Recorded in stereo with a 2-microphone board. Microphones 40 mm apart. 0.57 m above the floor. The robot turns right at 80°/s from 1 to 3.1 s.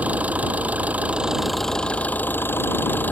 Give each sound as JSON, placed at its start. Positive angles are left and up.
{"t": 0.0, "sound": "an engine running", "azimuth_deg": -45}